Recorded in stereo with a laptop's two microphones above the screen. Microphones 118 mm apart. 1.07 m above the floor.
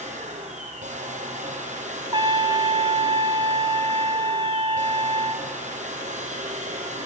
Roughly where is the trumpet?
Right.